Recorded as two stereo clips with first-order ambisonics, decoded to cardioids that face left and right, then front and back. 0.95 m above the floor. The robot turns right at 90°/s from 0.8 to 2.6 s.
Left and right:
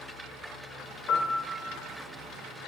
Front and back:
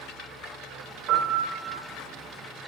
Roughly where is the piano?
Behind.